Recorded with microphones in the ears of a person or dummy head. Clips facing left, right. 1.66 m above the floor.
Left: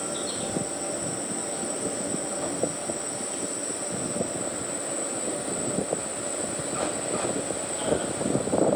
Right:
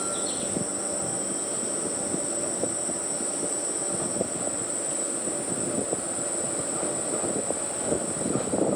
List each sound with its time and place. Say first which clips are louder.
0.0 s an insect: even; 80° right, 6 m